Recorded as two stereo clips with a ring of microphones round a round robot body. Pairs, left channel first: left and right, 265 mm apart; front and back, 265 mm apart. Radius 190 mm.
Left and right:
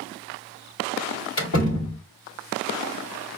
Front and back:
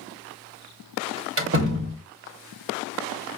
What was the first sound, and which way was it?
A door slam, 140° left.